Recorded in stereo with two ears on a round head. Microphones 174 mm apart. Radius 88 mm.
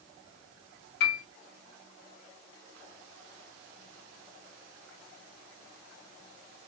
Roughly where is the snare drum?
I don't hear a snare drum.